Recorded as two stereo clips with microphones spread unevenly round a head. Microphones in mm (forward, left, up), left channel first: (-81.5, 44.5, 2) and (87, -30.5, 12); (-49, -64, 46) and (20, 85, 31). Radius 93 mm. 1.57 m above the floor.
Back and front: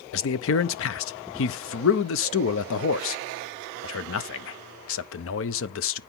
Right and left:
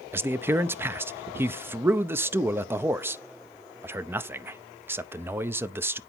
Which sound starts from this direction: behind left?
A man speaking, at 0.1 s.